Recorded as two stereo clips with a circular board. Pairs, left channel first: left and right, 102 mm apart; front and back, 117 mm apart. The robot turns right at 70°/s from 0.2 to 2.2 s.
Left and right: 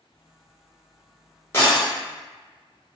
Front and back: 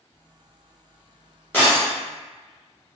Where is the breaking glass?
55° left, 1.2 m; by 1.9 s 80° left, 1.2 m.